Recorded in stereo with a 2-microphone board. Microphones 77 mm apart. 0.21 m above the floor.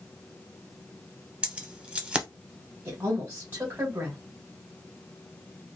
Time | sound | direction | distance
1.4 | keys jangling | 15° right (ahead or behind) | 0.6 m
2.9 | a woman speaking | 25° right (ahead or behind) | 1.1 m